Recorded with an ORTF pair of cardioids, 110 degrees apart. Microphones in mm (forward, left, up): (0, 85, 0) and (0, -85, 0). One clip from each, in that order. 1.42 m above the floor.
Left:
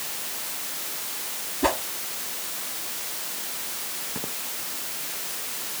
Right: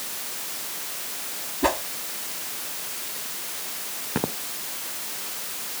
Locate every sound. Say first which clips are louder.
1.6 s a whoosh: right 1 dB; 5° right
4.2 s footsteps: right 10 dB; 60° right